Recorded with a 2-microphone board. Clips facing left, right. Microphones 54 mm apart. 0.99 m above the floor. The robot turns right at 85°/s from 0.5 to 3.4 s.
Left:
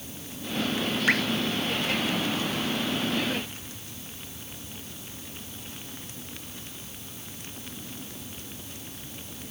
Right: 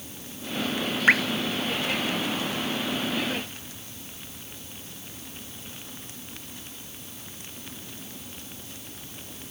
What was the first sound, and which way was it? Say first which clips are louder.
Dripping: right 5 dB; 30° right (ahead or behind).